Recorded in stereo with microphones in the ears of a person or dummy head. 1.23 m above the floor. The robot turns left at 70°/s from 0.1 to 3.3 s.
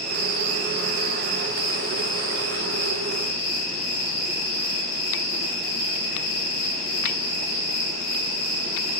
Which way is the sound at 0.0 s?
45° right.